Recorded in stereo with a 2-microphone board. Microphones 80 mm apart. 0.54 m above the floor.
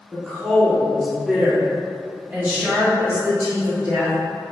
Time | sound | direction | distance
0.1 | a woman speaking | 5° left (ahead or behind) | 1.2 m